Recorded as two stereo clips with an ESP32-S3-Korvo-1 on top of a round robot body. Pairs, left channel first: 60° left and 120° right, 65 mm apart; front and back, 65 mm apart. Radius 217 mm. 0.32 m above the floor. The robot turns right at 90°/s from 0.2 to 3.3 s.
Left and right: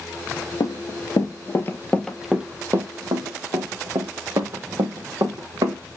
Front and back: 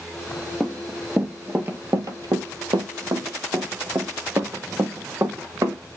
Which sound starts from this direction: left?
Running footsteps, at 0.6 s.